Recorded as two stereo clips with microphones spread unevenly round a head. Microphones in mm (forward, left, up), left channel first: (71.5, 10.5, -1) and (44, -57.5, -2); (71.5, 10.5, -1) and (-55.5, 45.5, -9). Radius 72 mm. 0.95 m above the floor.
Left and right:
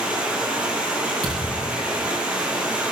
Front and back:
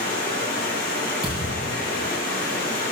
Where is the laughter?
No laughter in this recording.